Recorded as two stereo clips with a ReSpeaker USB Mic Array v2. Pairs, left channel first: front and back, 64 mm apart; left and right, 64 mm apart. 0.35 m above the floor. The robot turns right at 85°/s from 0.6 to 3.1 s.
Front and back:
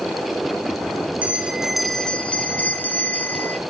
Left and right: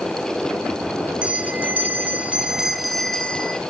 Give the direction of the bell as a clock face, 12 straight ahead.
5 o'clock.